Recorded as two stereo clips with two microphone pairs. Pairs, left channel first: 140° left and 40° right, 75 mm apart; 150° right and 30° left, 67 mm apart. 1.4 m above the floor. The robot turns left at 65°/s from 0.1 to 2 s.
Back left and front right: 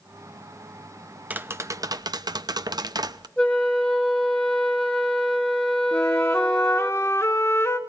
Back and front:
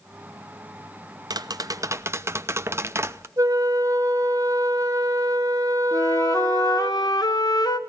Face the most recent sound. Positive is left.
turn(degrees=-165)